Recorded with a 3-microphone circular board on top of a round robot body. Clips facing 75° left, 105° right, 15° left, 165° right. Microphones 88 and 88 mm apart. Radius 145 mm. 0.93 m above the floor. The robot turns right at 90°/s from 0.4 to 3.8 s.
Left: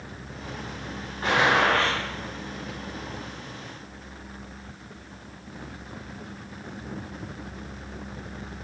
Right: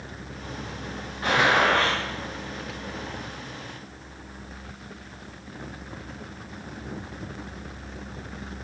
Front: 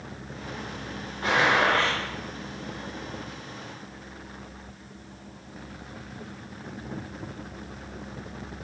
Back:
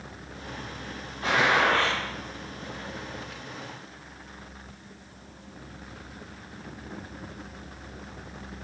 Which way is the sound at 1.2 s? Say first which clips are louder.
Even, front 1 dB; 35° left.